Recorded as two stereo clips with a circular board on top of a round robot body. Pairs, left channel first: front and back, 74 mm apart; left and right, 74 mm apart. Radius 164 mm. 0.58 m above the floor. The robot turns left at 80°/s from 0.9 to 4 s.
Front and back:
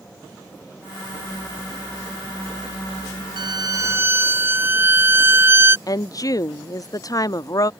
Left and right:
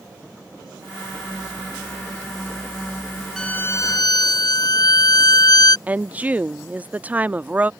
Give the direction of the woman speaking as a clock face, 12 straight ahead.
1 o'clock.